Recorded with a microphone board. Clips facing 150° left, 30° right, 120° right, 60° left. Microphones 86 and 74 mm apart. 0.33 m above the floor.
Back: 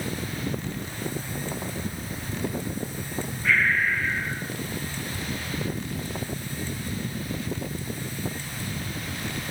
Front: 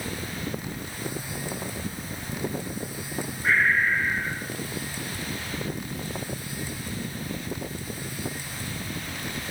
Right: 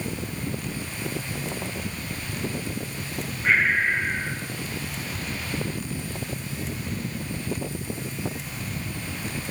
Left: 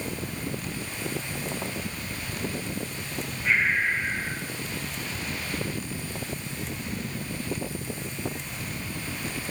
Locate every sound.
3.4 s breathing: 85° right, 8 m